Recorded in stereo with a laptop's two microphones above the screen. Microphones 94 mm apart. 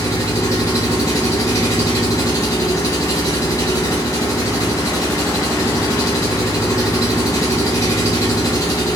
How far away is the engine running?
About 1.2 m.